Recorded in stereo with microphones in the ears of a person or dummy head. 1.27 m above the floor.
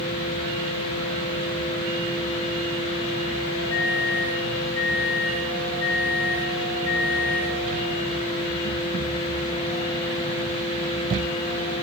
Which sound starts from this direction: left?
A microwave, at 3.7 s.